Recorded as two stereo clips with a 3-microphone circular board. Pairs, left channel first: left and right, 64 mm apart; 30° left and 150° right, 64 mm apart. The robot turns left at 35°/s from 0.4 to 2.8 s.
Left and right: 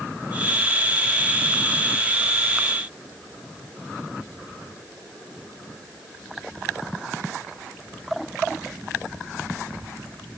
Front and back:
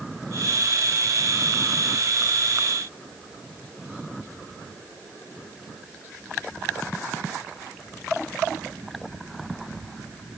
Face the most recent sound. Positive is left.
No sound to turn to.